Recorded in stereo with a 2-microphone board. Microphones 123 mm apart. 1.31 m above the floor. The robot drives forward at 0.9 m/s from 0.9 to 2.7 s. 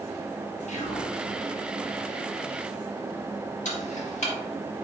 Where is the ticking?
75° left (ahead or behind), 1.3 m.